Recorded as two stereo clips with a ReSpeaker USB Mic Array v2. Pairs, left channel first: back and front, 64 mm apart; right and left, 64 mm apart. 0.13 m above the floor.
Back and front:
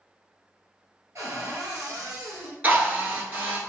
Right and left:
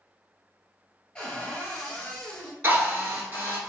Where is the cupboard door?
20° right, 1.1 m.